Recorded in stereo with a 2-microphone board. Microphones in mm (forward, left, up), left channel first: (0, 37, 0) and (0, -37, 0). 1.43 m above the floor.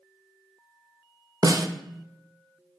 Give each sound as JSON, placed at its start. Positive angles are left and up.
{"t": 1.4, "sound": "a snare drum", "side_deg": -55, "distance_m": 0.6}